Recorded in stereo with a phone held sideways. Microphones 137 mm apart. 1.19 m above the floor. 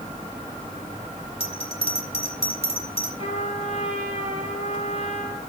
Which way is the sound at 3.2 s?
45° left (ahead or behind).